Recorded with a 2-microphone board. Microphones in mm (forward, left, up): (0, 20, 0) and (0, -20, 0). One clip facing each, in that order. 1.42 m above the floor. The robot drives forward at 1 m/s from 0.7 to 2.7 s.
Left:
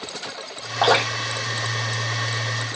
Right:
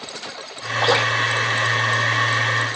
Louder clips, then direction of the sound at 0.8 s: Right 1 dB; 90° left.